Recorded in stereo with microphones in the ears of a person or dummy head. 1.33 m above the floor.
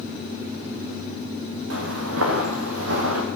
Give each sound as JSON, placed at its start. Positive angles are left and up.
{"t": 1.7, "sound": "footsteps", "side_deg": -75, "distance_m": 5.0}